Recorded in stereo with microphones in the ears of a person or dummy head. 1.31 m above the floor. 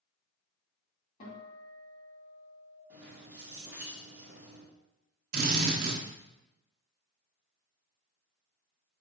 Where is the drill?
60° right (ahead or behind), 1.1 m.